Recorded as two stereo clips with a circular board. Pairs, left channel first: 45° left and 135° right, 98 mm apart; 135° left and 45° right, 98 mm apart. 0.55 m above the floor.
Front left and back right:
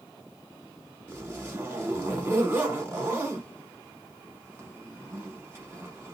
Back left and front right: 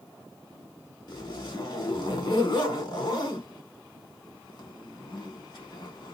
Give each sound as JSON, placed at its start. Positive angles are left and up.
{"t": 1.1, "sound": "a zipper", "azimuth_deg": 160, "distance_m": 1.4}